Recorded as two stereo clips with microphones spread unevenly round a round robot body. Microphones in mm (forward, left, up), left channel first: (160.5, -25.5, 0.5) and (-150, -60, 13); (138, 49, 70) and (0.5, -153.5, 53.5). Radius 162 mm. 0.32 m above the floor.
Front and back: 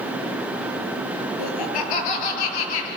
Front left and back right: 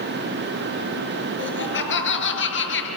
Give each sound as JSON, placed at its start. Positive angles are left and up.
{"t": 1.4, "sound": "laughter", "azimuth_deg": 15, "distance_m": 5.5}